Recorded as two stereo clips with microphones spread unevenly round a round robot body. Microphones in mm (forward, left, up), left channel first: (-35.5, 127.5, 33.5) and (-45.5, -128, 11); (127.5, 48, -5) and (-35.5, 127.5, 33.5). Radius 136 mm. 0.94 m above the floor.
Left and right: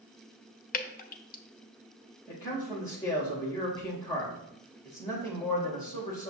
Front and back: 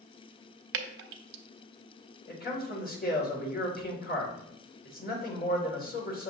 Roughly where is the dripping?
Behind left.